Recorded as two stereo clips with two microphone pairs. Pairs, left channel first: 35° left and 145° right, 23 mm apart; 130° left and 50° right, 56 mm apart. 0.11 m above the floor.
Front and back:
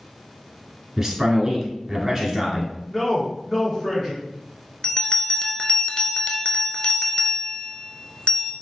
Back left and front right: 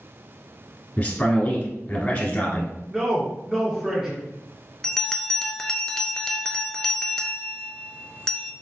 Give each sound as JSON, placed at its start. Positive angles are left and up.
{"t": 1.0, "sound": "a man speaking", "azimuth_deg": 165, "distance_m": 1.3}
{"t": 2.9, "sound": "a man speaking", "azimuth_deg": -5, "distance_m": 1.6}
{"t": 4.8, "sound": "a bell", "azimuth_deg": 50, "distance_m": 0.6}